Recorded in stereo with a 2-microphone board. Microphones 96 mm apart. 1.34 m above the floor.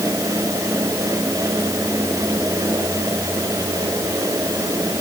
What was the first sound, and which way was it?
Only background noise.